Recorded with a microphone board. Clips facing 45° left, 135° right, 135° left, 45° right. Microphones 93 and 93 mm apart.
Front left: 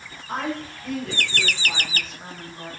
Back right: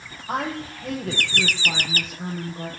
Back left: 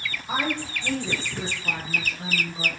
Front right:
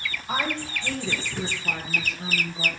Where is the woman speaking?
150° right, 9 m; by 2.7 s 160° right, 8.5 m.